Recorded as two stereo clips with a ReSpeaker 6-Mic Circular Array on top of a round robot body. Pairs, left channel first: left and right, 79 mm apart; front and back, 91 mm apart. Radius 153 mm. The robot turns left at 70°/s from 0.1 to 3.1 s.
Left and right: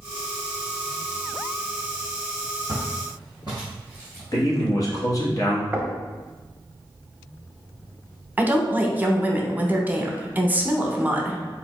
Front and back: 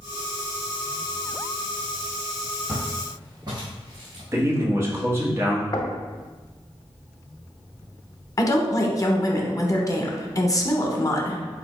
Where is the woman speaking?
30° right, 1.0 m.